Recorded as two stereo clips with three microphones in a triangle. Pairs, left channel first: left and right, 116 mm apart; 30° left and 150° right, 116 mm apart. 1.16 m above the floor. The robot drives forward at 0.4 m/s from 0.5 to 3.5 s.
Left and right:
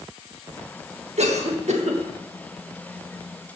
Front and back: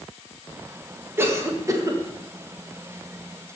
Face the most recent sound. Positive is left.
turn(degrees=-115)